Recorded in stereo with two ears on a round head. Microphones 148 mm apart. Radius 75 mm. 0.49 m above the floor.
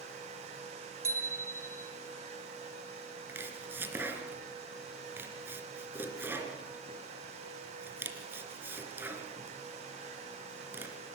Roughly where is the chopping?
Centre.